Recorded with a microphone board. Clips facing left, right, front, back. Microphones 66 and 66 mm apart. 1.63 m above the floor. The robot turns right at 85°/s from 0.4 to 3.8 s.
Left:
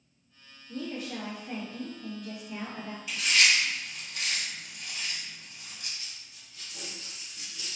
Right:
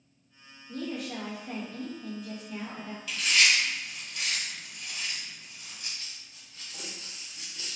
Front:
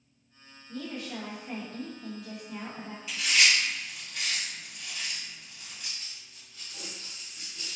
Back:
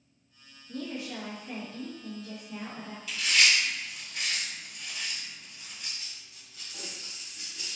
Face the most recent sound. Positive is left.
turn(degrees=-105)